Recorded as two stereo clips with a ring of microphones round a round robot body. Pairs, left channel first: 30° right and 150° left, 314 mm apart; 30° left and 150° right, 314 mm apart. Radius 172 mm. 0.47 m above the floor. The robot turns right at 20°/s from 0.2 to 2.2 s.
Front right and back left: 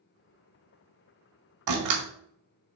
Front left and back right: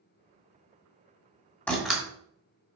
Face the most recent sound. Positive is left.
turn(degrees=125)